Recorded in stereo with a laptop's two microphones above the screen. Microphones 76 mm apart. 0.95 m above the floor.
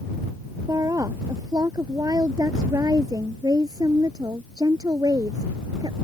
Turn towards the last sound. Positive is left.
turn(degrees=-60)  # may be behind; listen again after turning